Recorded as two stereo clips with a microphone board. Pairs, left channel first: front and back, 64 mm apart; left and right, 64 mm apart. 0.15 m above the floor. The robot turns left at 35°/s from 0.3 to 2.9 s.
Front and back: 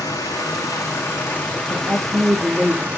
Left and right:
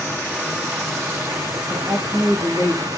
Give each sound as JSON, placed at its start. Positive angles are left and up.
{"t": 0.0, "sound": "running water", "azimuth_deg": -25, "distance_m": 1.8}
{"t": 1.7, "sound": "a woman speaking", "azimuth_deg": -130, "distance_m": 7.0}